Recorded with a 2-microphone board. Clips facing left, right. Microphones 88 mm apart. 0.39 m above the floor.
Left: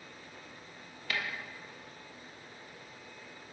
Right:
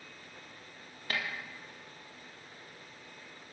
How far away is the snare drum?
About 2.5 m.